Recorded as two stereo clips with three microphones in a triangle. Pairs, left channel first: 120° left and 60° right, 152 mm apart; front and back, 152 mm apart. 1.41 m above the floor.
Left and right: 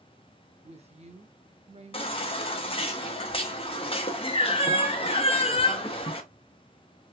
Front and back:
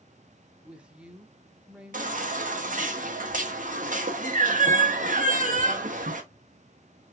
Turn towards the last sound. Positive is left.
turn(degrees=165)